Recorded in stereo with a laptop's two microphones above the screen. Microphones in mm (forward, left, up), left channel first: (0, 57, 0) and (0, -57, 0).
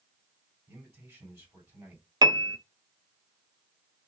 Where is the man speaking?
25° right (ahead or behind), 3 m.